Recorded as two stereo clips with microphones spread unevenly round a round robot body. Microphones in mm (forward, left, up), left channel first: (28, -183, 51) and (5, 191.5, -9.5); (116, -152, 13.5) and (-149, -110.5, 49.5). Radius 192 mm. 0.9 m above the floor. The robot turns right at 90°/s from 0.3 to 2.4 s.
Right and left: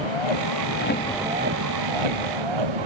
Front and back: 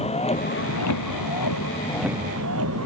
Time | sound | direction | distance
0.0 | a vehicle | 75° right | ?